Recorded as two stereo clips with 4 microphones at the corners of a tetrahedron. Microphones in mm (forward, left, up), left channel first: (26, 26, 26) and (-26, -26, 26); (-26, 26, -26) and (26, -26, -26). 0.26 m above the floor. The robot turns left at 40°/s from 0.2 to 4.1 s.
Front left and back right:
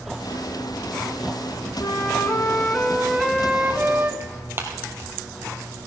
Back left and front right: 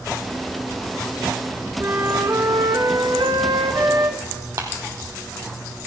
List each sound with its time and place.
1.8 s a flute: 10° left, 1.1 m; by 4.1 s 85° right, 1.1 m
4.2 s tearing paper: 85° right, 2.5 m